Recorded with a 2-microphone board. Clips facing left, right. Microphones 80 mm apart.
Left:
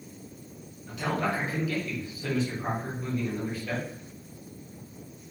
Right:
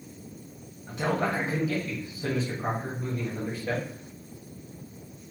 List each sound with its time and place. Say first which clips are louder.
0.9 s a man speaking: right 2 dB; 30° right (ahead or behind), 1.3 m